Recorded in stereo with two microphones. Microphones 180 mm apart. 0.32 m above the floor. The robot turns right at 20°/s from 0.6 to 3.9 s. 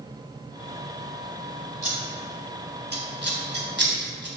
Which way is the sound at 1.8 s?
40° right (ahead or behind).